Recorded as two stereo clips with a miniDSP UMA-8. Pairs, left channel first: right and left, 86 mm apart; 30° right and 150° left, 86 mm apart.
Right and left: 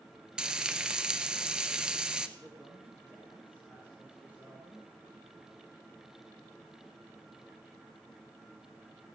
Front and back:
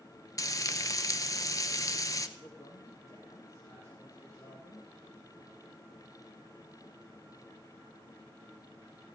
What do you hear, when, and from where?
0.4 s frying: 10° left, 0.9 m
2.4 s a woman speaking: 15° left, 3.5 m